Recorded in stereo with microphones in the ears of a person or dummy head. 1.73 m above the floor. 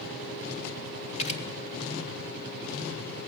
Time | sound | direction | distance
1.2 | a camera shutter | 40° left (ahead or behind) | 3.5 m